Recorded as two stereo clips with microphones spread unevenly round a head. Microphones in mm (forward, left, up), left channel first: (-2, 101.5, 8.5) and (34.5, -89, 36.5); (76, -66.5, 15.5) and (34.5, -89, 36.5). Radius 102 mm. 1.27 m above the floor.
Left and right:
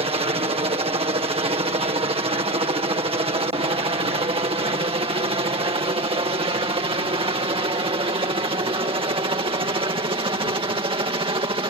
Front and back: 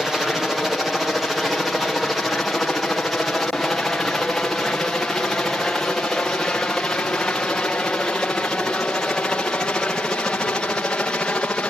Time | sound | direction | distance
0.0 | a helicopter | 35° right | ?